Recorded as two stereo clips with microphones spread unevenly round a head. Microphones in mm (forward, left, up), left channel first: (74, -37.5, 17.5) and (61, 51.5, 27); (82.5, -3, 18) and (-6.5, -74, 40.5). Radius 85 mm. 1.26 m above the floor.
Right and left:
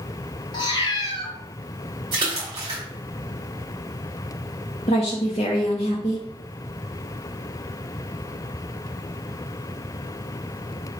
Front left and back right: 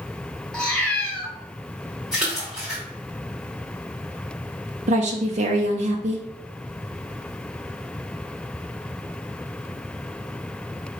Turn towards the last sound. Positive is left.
turn(degrees=-135)